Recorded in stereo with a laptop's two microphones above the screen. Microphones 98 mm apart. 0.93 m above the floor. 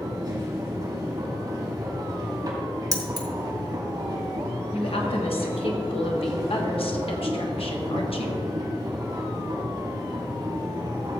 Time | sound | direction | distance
0.0 | a machine running | 40° right (ahead or behind) | 3 m
2.9 | keys jangling | 40° right (ahead or behind) | 0.9 m
4.7 | a woman speaking | 75° left (ahead or behind) | 1.3 m